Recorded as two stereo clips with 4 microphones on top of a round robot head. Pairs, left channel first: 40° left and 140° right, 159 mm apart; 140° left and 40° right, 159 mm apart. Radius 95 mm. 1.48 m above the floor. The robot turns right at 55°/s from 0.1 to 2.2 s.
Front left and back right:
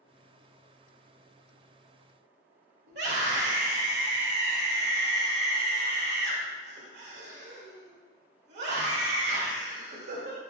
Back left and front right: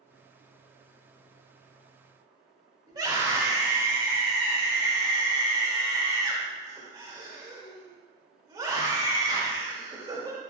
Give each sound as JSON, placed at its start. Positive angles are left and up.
{"t": 2.9, "sound": "a scream", "azimuth_deg": -110, "distance_m": 2.0}